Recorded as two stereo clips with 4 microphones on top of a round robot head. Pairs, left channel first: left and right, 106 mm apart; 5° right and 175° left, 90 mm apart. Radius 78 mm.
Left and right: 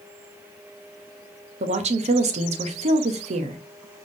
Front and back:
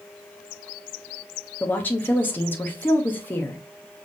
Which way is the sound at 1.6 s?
80° right.